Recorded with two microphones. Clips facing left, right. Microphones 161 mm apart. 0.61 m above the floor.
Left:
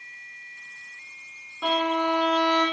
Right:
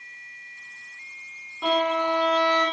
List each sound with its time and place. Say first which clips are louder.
1.6 s a violin: right 1 dB; 10° right (ahead or behind), 1.1 m